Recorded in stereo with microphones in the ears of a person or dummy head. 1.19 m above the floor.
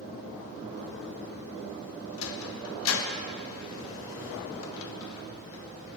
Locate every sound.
2.2 s a sliding door: 75° left (ahead or behind), 1.8 m